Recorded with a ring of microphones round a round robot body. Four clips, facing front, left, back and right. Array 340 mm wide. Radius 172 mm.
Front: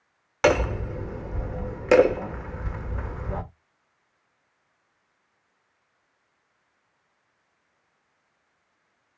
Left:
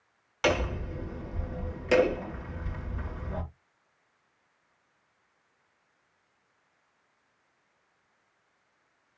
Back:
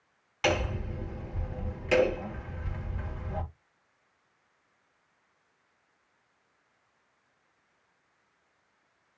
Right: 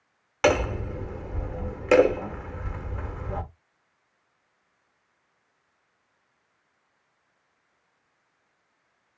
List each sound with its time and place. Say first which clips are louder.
0.4 s hammering: right 5 dB, front 8 dB; 30° right, 1.4 m